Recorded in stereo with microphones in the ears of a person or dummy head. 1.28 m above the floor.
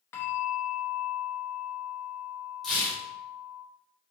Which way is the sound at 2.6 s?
Centre (ahead or behind).